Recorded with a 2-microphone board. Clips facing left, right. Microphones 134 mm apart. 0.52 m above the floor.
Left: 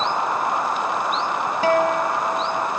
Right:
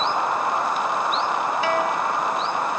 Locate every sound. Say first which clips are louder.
1.6 s a guitar: left 8 dB; 45° left (ahead or behind), 0.8 m